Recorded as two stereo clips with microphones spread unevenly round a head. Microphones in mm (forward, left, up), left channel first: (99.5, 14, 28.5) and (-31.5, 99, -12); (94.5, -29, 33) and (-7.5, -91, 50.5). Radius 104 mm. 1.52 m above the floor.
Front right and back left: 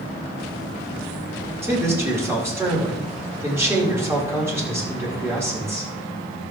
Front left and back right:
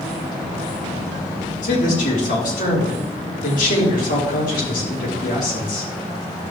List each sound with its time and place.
1.6 s a man speaking: 70° left, 4 m